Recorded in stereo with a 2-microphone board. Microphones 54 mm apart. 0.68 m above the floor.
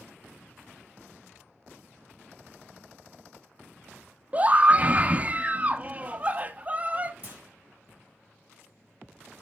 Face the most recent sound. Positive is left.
turn(degrees=-30)  # may be behind; listen again after turning